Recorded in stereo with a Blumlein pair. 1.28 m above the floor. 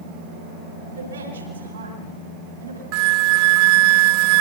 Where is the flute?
45° right, 0.5 m.